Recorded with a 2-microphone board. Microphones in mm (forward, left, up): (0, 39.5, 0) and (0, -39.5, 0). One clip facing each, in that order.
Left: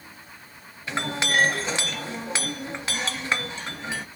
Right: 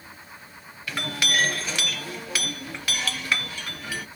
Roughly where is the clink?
Left.